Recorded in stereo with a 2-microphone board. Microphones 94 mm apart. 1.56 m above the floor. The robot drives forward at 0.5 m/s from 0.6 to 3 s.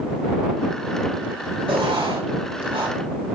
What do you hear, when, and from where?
1.7 s writing: 75° right (ahead or behind), 5 m; by 3.0 s 85° right, 4.5 m